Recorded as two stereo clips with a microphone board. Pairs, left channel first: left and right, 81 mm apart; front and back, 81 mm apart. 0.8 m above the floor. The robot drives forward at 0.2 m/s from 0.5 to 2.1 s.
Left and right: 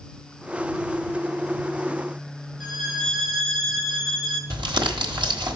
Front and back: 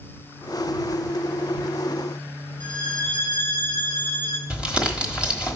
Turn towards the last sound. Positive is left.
turn(degrees=-105)